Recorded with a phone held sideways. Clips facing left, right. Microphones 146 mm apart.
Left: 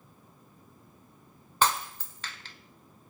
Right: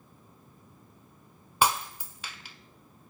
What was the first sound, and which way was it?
Breaking glass, 10° right (ahead or behind).